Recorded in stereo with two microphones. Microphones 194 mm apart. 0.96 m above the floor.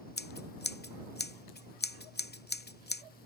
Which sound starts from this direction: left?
Scissors, at 0.2 s.